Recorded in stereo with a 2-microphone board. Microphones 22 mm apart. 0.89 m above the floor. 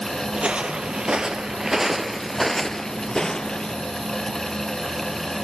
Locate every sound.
0.3 s footsteps: 50° right (ahead or behind), 1.3 m; by 3.8 s 40° left (ahead or behind), 1.2 m